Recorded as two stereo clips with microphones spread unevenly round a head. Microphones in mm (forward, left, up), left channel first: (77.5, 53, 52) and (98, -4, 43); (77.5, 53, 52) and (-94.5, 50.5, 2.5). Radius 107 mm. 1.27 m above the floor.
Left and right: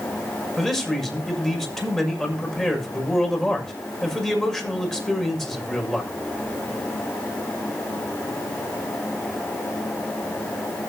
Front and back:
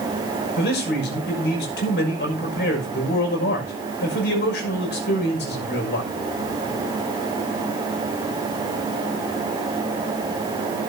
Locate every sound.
0.6 s a man speaking: 30° left, 6.5 m